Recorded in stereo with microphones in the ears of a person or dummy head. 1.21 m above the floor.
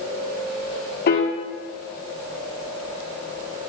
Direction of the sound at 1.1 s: 50° left (ahead or behind).